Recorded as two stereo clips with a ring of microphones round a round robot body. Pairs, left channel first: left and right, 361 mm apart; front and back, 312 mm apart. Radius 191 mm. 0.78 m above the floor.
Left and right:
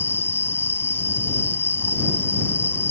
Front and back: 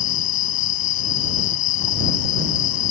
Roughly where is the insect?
Ahead.